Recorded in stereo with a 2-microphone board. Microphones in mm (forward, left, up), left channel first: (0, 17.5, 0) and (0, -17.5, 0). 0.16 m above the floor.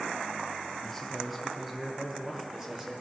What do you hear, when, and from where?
0.8 s a man speaking: 10° left (ahead or behind), 1.7 m; by 3.0 s 15° right (ahead or behind), 4 m